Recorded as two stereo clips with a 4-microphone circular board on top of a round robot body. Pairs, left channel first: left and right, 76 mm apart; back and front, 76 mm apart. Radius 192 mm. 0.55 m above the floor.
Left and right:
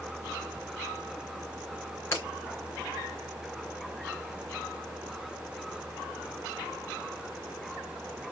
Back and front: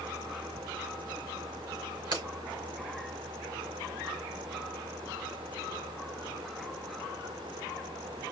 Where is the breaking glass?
30° left, 3.5 m.